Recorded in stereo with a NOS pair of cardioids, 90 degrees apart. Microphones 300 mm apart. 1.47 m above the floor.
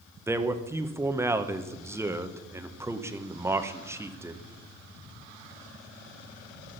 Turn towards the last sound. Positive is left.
turn(degrees=-10)